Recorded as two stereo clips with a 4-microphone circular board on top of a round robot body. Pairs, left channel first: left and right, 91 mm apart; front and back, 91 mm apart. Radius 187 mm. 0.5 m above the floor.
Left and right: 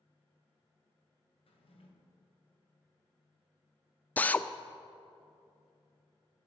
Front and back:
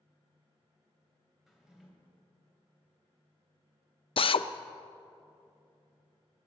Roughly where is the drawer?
Left.